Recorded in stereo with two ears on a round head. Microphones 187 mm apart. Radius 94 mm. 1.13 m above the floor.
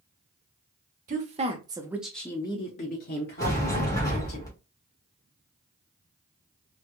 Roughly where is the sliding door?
Centre.